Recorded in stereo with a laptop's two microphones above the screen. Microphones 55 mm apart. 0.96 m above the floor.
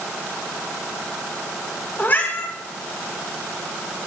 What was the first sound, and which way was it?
A cat meowing, 35° left (ahead or behind).